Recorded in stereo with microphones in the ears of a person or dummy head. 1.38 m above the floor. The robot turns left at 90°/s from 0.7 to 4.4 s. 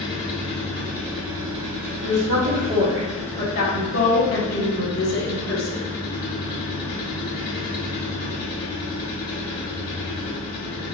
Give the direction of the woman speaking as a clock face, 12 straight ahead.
3 o'clock.